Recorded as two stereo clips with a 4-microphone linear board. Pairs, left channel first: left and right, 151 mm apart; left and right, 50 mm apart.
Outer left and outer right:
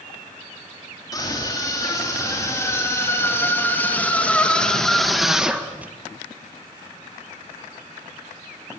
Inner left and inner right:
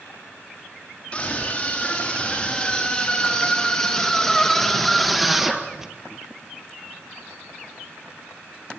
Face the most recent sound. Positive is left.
turn(degrees=-10)  # may be behind; listen again after turning